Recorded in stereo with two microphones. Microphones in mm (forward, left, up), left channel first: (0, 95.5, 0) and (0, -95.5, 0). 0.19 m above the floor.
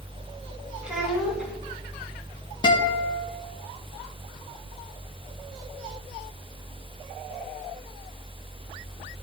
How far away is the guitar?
About 1.0 m.